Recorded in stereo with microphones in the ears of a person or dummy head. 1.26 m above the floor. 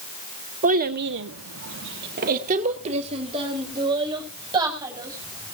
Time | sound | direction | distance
0.6 | a child speaking | 40° right (ahead or behind) | 1.7 m